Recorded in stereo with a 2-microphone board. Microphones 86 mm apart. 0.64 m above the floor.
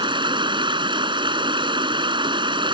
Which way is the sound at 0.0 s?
65° right (ahead or behind).